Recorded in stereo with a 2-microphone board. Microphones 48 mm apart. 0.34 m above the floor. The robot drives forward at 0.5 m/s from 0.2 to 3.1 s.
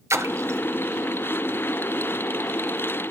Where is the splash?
80° right, 1.4 m; by 0.6 s 70° right (ahead or behind), 1.4 m.